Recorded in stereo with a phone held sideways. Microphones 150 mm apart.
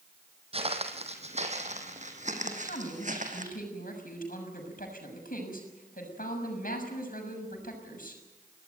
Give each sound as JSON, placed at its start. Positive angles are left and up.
{"t": 0.5, "sound": "footsteps", "side_deg": -40, "distance_m": 2.5}
{"t": 2.4, "sound": "a man speaking", "side_deg": 80, "distance_m": 6.5}